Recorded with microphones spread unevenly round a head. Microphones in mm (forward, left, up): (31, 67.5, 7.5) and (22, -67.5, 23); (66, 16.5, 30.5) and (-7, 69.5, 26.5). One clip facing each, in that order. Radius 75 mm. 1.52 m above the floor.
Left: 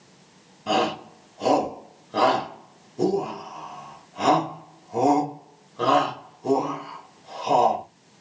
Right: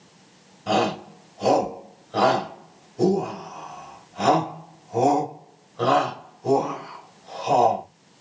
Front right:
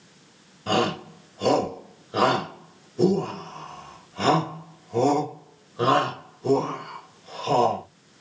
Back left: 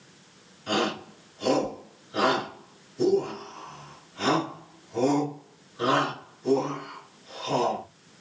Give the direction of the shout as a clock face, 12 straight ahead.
12 o'clock.